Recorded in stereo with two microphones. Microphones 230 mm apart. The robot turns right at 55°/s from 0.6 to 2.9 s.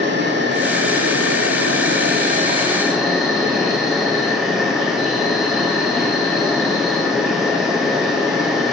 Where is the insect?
130° right, 1.7 m; by 8.7 s straight ahead, 1.7 m.